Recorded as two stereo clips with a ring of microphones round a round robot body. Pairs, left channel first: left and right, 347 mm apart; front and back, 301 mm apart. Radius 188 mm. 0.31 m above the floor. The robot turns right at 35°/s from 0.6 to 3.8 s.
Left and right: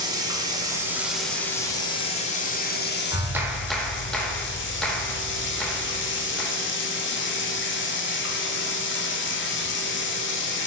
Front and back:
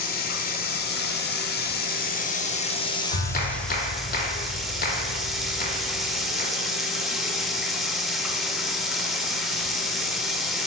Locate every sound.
0.0 s running water: 20° right, 0.7 m; by 10.7 s 90° left, 0.7 m
3.1 s a clap: 20° right, 0.7 m; by 6.5 s 5° left, 0.7 m